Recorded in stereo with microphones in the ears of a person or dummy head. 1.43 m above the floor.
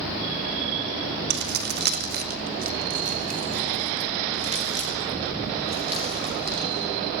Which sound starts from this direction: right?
Keys jangling, at 1.3 s.